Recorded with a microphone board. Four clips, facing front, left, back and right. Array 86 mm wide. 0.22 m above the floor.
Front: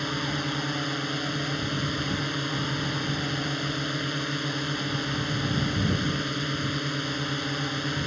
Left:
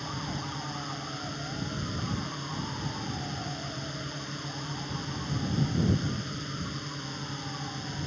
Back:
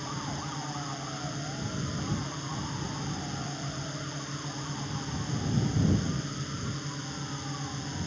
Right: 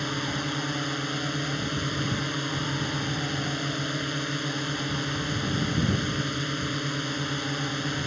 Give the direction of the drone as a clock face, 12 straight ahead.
1 o'clock.